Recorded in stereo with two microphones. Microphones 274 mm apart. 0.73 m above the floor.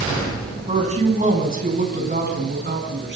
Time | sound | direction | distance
0.7 | a woman speaking | 25° right (ahead or behind) | 6 m